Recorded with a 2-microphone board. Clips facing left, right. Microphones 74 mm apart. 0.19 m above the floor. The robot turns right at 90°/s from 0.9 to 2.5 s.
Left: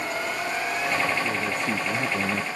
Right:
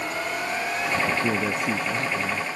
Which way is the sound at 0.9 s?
70° right.